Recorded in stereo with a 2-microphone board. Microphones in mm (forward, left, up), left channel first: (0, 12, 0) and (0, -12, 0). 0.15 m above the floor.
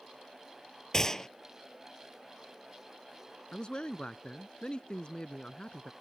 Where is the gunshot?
20° left (ahead or behind).